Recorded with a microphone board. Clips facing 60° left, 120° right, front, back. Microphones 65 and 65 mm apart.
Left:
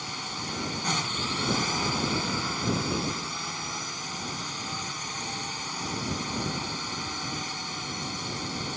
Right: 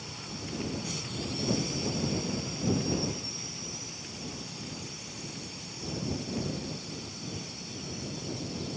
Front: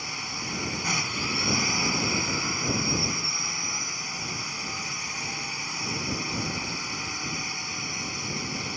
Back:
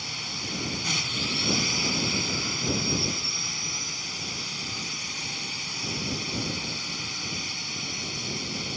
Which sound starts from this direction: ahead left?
A drone, at 0.0 s.